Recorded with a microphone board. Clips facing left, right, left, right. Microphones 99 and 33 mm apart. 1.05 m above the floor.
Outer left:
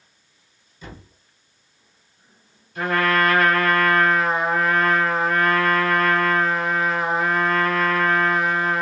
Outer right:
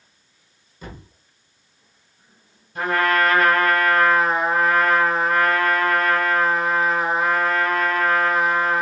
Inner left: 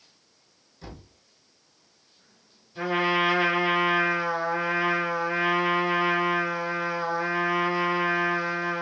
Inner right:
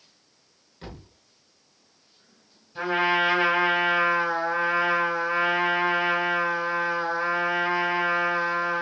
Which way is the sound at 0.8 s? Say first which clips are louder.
Outer right 2 dB, inner right 2 dB; 50° right (ahead or behind).